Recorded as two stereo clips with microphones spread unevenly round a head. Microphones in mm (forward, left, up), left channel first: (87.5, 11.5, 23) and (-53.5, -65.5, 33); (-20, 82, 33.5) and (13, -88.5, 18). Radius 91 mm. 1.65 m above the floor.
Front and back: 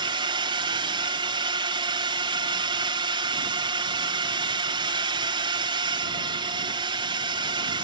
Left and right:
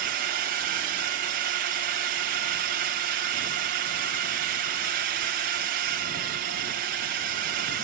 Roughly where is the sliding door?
I don't hear a sliding door.